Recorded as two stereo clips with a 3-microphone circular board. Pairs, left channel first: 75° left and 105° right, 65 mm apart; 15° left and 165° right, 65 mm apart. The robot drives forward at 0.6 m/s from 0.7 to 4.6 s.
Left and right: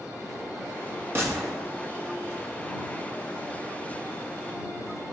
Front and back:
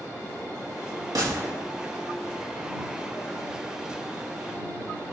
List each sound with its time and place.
1.1 s a gunshot: 155° right, 2 m